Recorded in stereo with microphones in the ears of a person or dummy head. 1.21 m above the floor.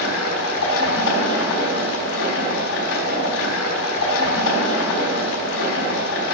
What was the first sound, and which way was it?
Running water, 80° left.